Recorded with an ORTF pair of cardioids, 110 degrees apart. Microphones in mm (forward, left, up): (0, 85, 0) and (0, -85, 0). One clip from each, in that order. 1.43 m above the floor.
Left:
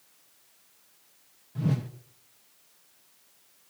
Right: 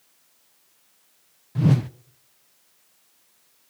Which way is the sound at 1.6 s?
40° right.